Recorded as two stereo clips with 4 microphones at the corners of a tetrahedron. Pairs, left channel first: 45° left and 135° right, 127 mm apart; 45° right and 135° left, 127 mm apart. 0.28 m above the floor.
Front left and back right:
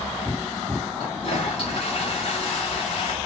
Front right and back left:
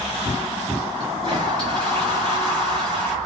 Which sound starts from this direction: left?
A toilet flushing, at 1.0 s.